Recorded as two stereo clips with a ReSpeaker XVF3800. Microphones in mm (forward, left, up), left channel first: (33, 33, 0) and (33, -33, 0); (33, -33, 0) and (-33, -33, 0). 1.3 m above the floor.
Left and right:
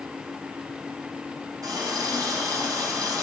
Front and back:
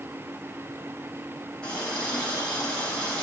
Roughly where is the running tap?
Right.